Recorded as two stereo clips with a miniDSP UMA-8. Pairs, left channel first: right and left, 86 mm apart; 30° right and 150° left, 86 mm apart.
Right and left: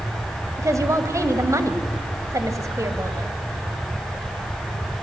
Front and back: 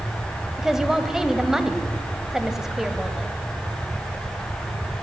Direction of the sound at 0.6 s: 70° left.